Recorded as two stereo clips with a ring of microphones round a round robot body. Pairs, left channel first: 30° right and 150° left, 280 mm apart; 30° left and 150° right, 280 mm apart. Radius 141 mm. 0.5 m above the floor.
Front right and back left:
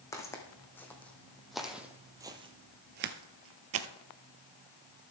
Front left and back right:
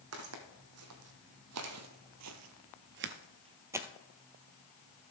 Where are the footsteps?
110° right, 1.7 m; by 3.9 s 125° left, 0.7 m.